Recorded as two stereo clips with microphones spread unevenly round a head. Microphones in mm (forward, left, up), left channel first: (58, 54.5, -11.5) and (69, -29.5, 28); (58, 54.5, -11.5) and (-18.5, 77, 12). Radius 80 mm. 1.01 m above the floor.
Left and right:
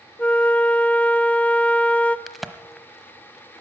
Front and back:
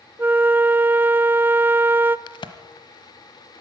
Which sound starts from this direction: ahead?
A crack, at 2.3 s.